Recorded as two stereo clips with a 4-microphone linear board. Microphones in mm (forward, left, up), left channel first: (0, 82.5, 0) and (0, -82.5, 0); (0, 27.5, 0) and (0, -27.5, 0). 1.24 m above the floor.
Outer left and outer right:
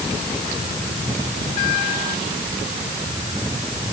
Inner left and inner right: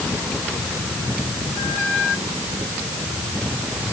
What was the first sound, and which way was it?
Only background noise.